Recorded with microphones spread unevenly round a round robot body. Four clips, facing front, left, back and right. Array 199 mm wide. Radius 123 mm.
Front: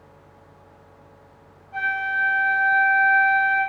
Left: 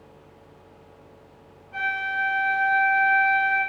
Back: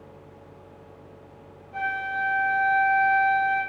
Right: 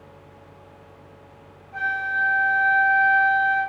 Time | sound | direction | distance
1.7 | a flute | 75° left | 1.4 m